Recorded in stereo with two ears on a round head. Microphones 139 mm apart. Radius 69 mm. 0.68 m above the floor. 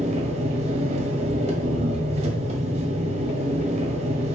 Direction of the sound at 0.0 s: 45° right (ahead or behind).